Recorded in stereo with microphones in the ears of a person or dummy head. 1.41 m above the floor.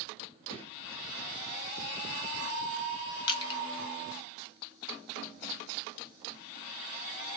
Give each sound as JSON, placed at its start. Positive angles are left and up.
{"t": 0.5, "sound": "a gunshot", "side_deg": 50, "distance_m": 1.5}
{"t": 3.3, "sound": "crushing", "side_deg": 35, "distance_m": 0.9}